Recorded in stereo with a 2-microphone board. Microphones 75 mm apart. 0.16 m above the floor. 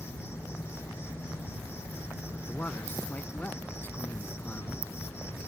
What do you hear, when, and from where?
0.0 s an insect: 35° left (ahead or behind)
2.3 s a man speaking: 25° left (ahead or behind)